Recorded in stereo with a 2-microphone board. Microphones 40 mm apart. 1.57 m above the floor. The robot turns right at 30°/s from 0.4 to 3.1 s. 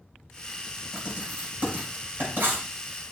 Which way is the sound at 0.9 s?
15° right (ahead or behind).